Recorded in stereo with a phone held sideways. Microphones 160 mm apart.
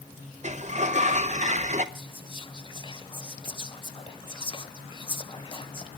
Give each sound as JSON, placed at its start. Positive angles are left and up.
{"t": 0.4, "sound": "a sliding door", "side_deg": -45, "distance_m": 0.7}
{"t": 1.9, "sound": "whispering", "side_deg": 30, "distance_m": 0.8}